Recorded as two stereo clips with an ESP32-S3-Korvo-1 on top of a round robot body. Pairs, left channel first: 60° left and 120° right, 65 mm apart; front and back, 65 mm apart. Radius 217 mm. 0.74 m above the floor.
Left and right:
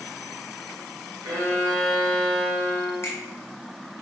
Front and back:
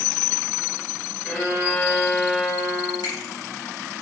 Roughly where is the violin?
Right.